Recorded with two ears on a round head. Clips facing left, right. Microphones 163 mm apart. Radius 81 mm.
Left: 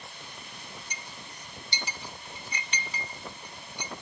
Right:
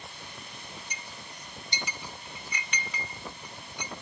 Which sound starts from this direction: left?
A clink, at 0.9 s.